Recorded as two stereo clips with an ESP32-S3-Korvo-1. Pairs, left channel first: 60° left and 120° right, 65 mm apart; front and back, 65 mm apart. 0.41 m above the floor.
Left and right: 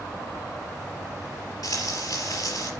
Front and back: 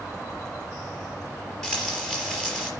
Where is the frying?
80° left, 4.5 m.